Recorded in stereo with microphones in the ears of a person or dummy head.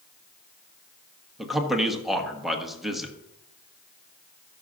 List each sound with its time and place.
1.4 s a man speaking: 5° right (ahead or behind), 1.1 m